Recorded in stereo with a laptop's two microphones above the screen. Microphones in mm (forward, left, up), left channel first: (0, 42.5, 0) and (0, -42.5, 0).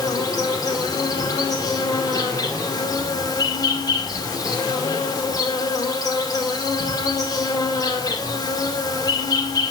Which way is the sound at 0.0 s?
45° left (ahead or behind).